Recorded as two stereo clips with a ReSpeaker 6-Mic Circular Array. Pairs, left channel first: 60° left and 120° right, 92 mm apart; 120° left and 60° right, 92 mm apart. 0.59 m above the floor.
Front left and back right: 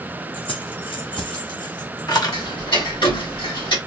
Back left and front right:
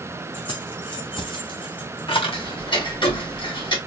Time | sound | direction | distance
0.3 | keys jangling | 80° left | 3 m
2.3 | ticking | 85° left | 4 m